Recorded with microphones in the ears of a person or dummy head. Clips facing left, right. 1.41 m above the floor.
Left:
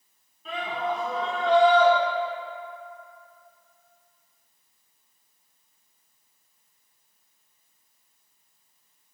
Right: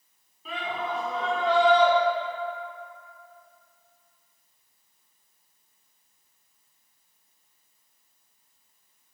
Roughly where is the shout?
Centre.